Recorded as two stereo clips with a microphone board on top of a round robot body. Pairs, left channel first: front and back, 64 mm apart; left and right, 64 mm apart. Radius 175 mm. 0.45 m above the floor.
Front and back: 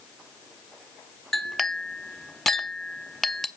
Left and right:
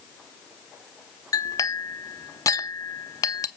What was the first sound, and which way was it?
A clink, 85° left.